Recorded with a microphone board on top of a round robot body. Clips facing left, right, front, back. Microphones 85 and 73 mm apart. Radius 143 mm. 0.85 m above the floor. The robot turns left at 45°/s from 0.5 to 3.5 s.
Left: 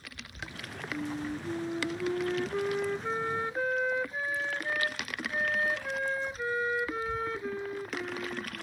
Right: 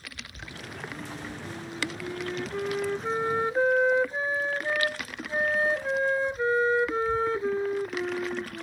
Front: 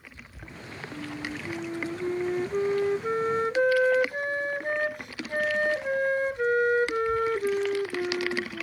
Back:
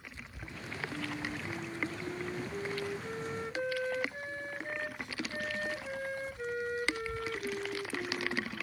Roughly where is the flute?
Left.